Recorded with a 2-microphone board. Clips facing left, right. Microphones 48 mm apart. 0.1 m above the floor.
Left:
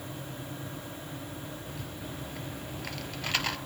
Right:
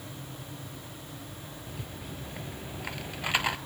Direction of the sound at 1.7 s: 15° right (ahead or behind).